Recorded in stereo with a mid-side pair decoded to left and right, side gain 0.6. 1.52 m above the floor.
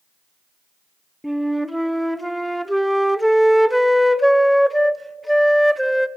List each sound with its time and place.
1.2 s a flute: straight ahead, 0.7 m